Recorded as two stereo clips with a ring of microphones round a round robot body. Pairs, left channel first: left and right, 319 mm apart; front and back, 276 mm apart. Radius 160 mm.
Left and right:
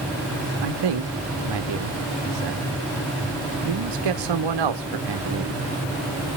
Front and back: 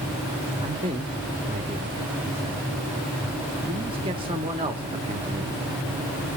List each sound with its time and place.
0.6 s a man speaking: 105° right, 1.4 m